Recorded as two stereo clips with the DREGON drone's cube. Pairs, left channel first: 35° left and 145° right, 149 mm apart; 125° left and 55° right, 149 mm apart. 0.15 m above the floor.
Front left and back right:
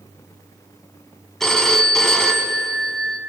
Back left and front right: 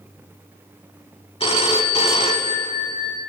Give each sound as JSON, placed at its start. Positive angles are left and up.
{"t": 1.4, "sound": "a phone ringing", "azimuth_deg": 120, "distance_m": 0.8}